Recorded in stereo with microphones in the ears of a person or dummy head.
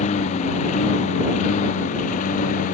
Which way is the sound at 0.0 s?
40° left (ahead or behind).